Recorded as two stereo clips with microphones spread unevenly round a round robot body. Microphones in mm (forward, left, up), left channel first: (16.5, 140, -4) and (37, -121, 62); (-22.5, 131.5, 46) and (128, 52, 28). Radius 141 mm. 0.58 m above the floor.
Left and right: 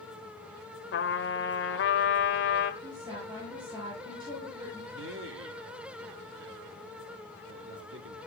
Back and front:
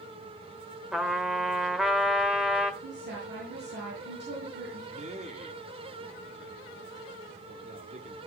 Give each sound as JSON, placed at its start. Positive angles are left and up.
{"t": 0.9, "sound": "a trumpet", "azimuth_deg": 60, "distance_m": 1.8}
{"t": 2.8, "sound": "a woman speaking", "azimuth_deg": -10, "distance_m": 10.0}
{"t": 4.9, "sound": "a man speaking", "azimuth_deg": -50, "distance_m": 1.7}